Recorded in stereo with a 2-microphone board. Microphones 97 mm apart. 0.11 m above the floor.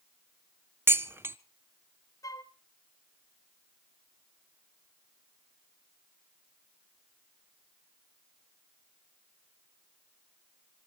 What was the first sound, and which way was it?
Dishes clattering, 25° right (ahead or behind).